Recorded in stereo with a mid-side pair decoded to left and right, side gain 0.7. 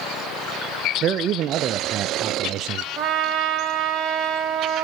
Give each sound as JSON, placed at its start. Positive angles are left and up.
{"t": 1.0, "sound": "a man speaking", "azimuth_deg": -45, "distance_m": 0.7}
{"t": 3.0, "sound": "a trumpet", "azimuth_deg": -45, "distance_m": 2.5}